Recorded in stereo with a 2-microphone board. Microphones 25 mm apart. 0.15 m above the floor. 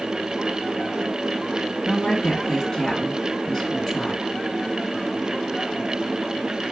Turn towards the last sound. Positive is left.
turn(degrees=20)  # may be behind; listen again after turning